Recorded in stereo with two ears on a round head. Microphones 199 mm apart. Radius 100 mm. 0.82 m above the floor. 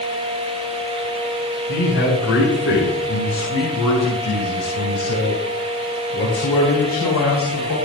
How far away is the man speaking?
About 6.5 m.